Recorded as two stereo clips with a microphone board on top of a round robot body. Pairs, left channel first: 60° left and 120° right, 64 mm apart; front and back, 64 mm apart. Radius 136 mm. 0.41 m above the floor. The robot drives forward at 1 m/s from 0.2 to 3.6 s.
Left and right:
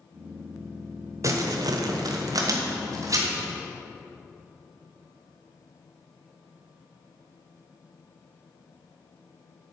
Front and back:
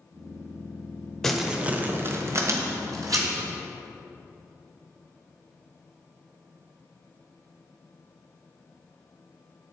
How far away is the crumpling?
About 1.0 m.